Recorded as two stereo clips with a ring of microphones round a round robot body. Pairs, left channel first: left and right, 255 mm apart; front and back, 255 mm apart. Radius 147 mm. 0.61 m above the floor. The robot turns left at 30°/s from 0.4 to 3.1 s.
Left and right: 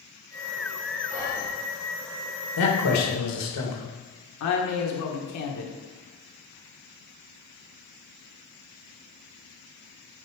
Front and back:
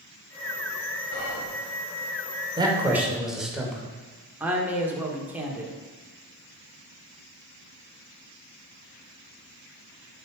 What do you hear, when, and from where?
1.1 s whispering: 5° left, 2.5 m; by 1.5 s 5° right, 2.5 m
2.6 s a man speaking: 110° left, 2 m; by 3.8 s 90° left, 2 m
4.4 s a woman speaking: 95° left, 1.5 m